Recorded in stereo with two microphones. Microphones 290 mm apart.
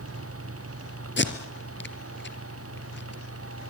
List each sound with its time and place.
1.2 s tape being pulled: 40° left (ahead or behind), 2 m